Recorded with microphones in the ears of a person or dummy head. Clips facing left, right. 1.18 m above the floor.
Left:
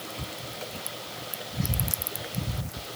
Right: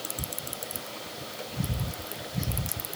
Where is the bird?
I don't hear a bird.